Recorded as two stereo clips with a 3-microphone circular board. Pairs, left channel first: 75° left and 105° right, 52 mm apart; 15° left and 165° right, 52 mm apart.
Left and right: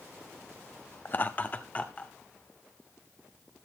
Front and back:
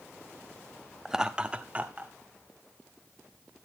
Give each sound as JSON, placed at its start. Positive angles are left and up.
{"t": 1.1, "sound": "laughter", "azimuth_deg": 115, "distance_m": 0.7}